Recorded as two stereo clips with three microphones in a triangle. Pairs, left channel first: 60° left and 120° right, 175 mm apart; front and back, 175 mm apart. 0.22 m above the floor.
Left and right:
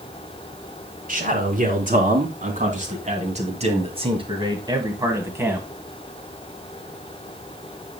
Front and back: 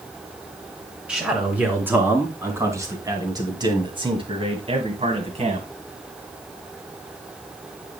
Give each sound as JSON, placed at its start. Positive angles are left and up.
{"t": 1.1, "sound": "a man speaking", "azimuth_deg": -100, "distance_m": 3.0}